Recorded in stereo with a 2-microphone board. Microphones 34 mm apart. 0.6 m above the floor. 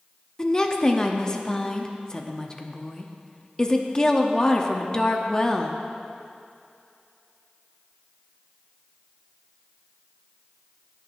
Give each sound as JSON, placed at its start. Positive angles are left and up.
{"t": 0.4, "sound": "a woman speaking", "side_deg": 20, "distance_m": 0.7}